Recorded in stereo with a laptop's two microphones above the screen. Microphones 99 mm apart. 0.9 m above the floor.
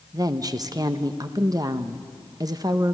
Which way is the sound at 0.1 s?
40° right (ahead or behind).